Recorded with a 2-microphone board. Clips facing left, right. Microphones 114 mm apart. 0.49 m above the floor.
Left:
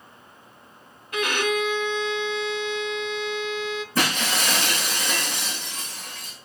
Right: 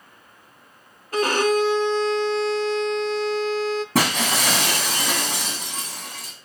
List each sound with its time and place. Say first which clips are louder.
1.1 s a violin: right 5 dB; 35° right (ahead or behind), 0.5 m
4.0 s breaking glass: right 1 dB; 80° right, 2.5 m